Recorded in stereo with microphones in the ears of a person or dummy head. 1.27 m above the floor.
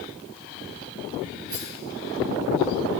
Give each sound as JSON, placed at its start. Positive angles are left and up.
{"t": 1.5, "sound": "a rattle", "side_deg": -15, "distance_m": 2.0}